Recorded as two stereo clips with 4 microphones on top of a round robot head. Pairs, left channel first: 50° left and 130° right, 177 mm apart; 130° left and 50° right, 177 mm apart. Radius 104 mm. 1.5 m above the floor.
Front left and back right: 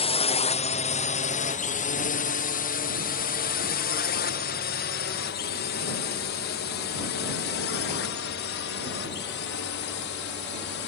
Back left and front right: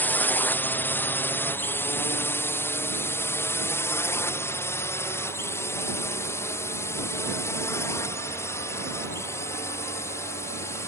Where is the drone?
55° left.